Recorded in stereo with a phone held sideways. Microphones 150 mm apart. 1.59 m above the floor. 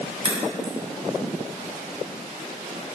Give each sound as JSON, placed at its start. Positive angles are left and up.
{"t": 0.2, "sound": "a crack", "side_deg": -40, "distance_m": 1.5}